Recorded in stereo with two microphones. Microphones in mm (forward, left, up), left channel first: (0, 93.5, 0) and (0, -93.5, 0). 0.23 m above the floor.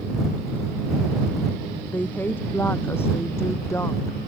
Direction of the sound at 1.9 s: 10° left (ahead or behind).